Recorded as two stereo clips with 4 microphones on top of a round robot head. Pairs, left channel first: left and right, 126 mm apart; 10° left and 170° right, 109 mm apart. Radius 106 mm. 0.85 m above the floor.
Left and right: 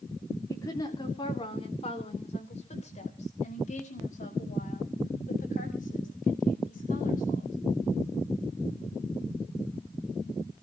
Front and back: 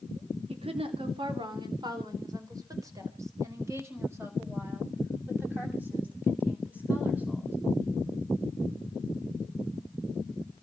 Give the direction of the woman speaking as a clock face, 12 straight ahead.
7 o'clock.